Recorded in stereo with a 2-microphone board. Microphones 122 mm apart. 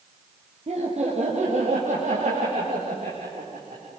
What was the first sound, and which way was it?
Laughter, 55° right (ahead or behind).